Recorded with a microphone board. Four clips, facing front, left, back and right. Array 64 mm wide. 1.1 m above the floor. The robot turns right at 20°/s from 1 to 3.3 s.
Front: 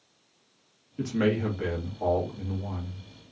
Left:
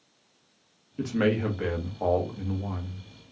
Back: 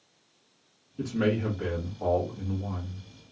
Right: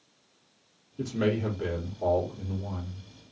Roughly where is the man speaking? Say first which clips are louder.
Left 2 dB, front 1 dB; ahead left.